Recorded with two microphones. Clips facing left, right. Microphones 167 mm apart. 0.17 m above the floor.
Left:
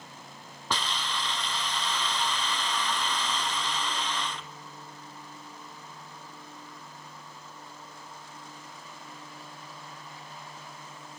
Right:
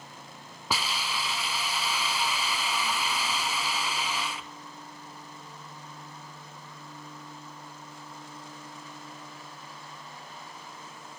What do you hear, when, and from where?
0.7 s a hiss: 5° right (ahead or behind), 0.7 m